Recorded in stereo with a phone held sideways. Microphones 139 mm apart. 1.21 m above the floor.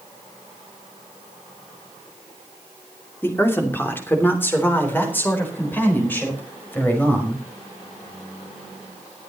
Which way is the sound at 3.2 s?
15° left (ahead or behind).